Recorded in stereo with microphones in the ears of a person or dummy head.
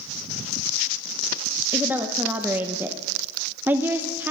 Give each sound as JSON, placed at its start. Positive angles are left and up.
{"t": 1.7, "sound": "a woman speaking", "side_deg": -10, "distance_m": 0.6}